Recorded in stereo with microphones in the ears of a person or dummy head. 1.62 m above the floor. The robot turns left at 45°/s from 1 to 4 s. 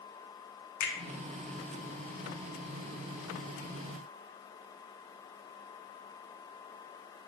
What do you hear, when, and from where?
0.8 s a finger snap: 60° left (ahead or behind), 0.7 m